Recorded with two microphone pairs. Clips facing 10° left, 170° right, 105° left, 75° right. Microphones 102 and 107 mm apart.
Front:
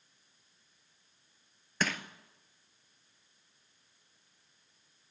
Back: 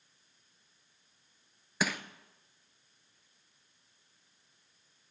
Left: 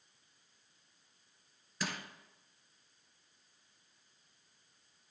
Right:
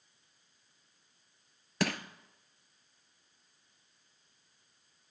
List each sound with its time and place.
1.8 s crushing: 90° right, 0.7 m